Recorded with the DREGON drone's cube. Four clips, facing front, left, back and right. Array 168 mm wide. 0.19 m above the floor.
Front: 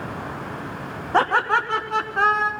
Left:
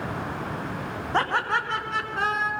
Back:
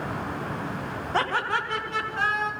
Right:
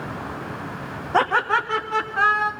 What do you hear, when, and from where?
1.1 s laughter: 25° right, 1.4 m; by 2.5 s 40° right, 2.0 m